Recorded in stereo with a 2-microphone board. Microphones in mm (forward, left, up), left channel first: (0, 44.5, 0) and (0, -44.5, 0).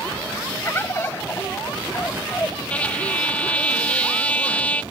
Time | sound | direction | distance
0.7 | a bird | 25° left (ahead or behind) | ?
2.7 | a trumpet | 15° left (ahead or behind) | ?